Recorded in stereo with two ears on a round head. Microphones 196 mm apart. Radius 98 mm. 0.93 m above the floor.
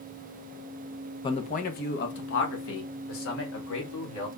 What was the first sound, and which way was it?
A man speaking, 20° left (ahead or behind).